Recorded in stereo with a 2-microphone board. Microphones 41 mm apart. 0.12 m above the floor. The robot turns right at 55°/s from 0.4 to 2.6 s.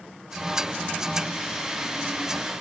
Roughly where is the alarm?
No alarm in this recording.